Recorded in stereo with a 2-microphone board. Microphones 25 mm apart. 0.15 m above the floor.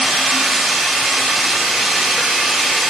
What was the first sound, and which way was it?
Running water, 5° right (ahead or behind).